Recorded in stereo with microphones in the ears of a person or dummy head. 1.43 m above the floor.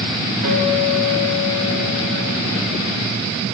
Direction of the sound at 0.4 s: 75° right (ahead or behind).